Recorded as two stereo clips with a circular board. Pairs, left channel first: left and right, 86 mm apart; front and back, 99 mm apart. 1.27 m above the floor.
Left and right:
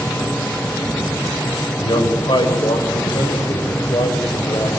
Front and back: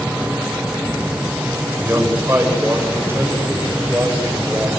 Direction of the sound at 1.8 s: 115° left.